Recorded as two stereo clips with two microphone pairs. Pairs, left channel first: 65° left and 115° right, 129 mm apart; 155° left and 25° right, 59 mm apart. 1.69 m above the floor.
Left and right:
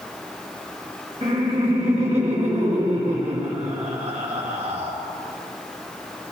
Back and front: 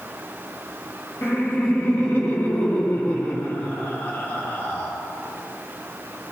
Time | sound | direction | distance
1.2 | laughter | 150° right | 2 m